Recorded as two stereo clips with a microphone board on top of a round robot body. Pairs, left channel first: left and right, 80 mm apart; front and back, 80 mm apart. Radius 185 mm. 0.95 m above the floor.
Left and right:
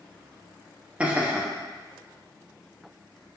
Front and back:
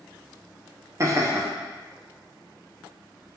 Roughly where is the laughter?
Behind.